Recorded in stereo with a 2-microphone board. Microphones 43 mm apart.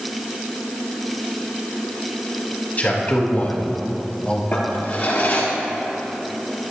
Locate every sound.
2.8 s a man speaking: 40° left (ahead or behind), 5 m; by 4.4 s 30° left (ahead or behind), 3.5 m
4.5 s a drawer: 40° left (ahead or behind), 3.5 m